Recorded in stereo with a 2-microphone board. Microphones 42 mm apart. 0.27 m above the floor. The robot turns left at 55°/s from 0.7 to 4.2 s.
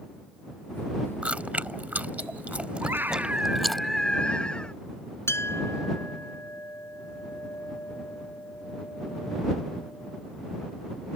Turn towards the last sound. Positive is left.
turn(degrees=70)  # may be behind; listen again after turning